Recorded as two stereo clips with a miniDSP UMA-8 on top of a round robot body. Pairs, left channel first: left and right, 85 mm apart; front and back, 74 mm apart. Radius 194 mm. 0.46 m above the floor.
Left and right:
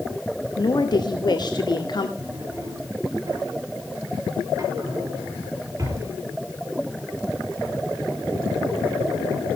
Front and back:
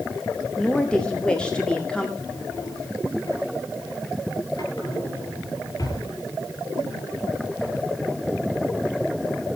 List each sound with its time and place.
0.6 s a woman speaking: 75° left, 2 m
2.2 s a drawer: 35° right, 5 m